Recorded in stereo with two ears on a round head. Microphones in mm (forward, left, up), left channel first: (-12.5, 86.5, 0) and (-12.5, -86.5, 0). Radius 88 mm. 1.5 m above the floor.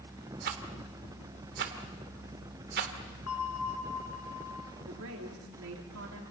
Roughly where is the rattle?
Right.